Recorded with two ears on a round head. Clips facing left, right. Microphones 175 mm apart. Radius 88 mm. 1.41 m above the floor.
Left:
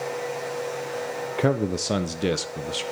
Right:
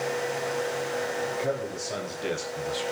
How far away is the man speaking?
About 0.6 m.